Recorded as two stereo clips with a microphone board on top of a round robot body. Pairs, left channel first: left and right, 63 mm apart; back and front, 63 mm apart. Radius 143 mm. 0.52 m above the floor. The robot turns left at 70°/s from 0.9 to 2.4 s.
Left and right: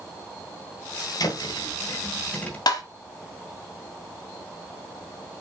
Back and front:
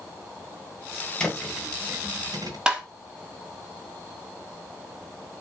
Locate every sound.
1.2 s a thud: 105° left, 1.9 m; by 2.6 s 20° left, 1.9 m
2.7 s tapping: 80° left, 1.0 m